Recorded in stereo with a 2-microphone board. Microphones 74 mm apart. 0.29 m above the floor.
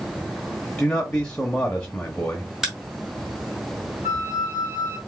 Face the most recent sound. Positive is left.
turn(degrees=-30)  # may be behind; listen again after turning